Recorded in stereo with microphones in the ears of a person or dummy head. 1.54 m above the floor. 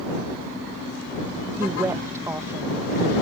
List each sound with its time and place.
1.6 s a woman speaking: 15° right (ahead or behind)